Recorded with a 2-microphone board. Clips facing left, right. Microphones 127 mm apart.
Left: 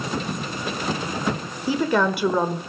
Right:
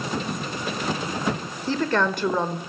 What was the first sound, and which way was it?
A woman speaking, 10° left (ahead or behind).